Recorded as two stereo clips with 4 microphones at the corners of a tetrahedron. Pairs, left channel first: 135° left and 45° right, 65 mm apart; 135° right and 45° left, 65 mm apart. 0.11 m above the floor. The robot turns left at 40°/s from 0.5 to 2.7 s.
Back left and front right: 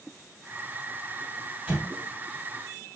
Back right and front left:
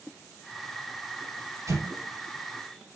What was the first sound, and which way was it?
An explosion, 25° left.